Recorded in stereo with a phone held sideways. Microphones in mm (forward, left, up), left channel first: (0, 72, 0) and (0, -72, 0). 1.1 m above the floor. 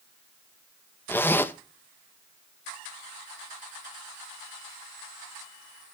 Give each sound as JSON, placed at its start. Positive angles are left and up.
{"t": 1.1, "sound": "a zipper", "side_deg": 15, "distance_m": 0.5}